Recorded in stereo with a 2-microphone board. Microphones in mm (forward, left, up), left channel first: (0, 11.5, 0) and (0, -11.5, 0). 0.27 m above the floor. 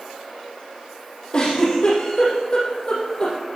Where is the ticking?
I don't hear ticking.